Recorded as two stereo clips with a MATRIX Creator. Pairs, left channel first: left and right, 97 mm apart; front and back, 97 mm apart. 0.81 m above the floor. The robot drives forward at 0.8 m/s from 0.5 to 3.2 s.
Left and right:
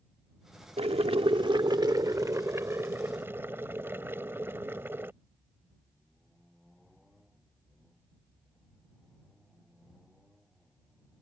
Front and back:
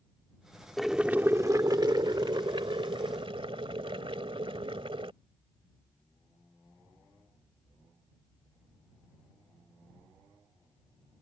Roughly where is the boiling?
Right.